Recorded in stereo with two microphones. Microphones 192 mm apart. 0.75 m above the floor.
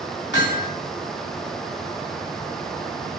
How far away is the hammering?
About 2.5 m.